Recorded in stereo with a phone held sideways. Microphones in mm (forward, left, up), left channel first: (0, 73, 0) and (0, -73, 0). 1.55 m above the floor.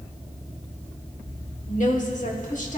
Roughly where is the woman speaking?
Left.